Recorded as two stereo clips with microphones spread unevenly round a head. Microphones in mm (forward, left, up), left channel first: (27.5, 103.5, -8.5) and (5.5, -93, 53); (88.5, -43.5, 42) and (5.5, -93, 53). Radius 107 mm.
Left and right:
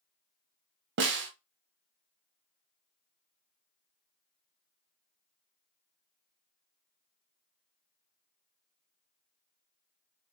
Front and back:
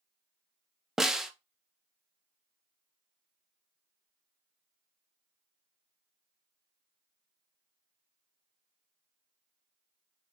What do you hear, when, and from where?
1.0 s a snare drum: 65° right, 0.6 m